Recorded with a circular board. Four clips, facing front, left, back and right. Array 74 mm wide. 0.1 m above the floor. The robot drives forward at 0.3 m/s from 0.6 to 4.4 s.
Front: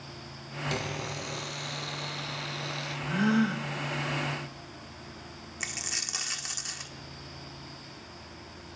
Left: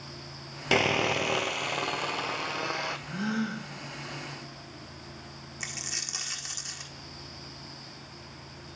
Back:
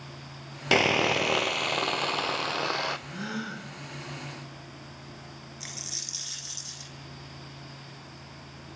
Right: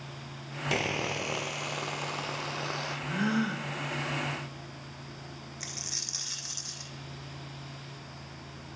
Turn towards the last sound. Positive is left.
turn(degrees=15)